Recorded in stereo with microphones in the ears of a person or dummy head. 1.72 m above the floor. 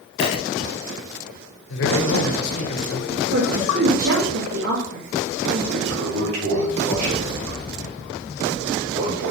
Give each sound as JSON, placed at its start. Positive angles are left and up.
{"t": 0.2, "sound": "a dropped coin", "side_deg": 35, "distance_m": 2.0}
{"t": 1.7, "sound": "a man speaking", "side_deg": 70, "distance_m": 1.4}
{"t": 3.1, "sound": "a woman speaking", "side_deg": -60, "distance_m": 2.5}
{"t": 5.7, "sound": "a toilet flushing", "side_deg": -90, "distance_m": 3.0}